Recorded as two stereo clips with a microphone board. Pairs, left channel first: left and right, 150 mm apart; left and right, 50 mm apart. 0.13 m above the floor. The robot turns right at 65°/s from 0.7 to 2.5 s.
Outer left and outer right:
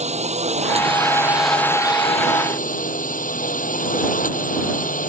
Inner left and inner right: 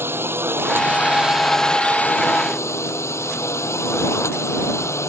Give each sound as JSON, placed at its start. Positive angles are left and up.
{"t": 0.0, "sound": "a drone", "azimuth_deg": -50}